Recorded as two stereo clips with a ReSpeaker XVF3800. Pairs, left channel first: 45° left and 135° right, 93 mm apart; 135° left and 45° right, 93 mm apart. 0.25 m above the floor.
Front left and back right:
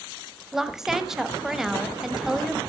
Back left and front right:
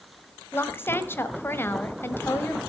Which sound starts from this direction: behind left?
A woman speaking, at 0.5 s.